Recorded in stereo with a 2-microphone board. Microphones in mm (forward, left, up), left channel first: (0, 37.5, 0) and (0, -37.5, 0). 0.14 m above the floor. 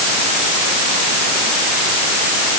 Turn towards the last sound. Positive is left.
No sound to turn to.